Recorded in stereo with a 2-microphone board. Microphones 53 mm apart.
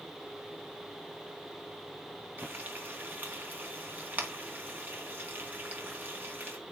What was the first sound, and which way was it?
Frying, 40° right (ahead or behind).